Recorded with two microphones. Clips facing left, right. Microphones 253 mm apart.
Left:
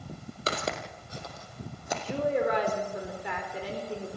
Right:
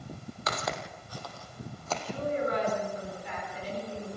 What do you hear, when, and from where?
0.5 s footsteps: 35° left (ahead or behind), 2.5 m; by 1.9 s 15° left (ahead or behind), 4.5 m
2.0 s a woman speaking: 75° left (ahead or behind), 4.5 m